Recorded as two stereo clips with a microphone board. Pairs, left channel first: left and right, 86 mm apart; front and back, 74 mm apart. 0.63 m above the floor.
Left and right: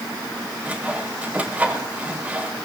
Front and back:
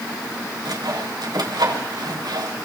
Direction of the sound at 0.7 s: 165° right.